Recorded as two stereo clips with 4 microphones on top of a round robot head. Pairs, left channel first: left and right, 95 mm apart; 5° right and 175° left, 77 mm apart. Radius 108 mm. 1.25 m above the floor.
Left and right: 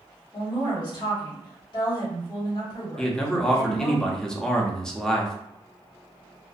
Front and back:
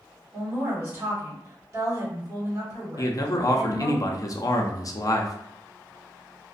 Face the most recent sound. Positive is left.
turn(degrees=10)